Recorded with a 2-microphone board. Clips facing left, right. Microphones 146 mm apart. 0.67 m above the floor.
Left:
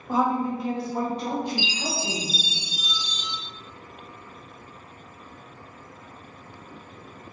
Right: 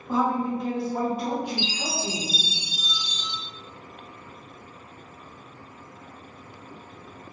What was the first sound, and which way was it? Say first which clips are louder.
A woman speaking: left 1 dB; 10° left (ahead or behind).